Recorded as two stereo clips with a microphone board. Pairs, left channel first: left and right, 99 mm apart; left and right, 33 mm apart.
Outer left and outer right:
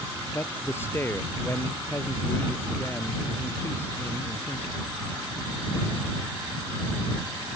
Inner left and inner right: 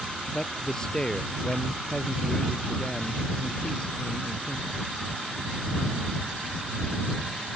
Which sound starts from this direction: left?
A man speaking, at 0.3 s.